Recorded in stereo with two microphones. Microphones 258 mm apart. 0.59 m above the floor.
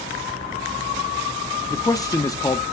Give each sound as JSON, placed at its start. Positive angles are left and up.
{"t": 1.7, "sound": "a man speaking", "side_deg": 15, "distance_m": 0.6}